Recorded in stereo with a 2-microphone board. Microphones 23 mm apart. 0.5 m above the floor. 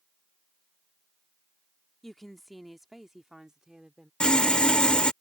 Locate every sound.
2.0 s a woman speaking: 15° left (ahead or behind); by 4.1 s 40° right (ahead or behind)
4.2 s sawing: 50° left (ahead or behind)